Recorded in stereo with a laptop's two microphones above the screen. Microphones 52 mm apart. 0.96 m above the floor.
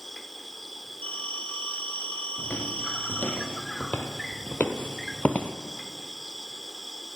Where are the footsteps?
30° left (ahead or behind), 1.9 m; by 5.6 s 35° left (ahead or behind), 1.2 m.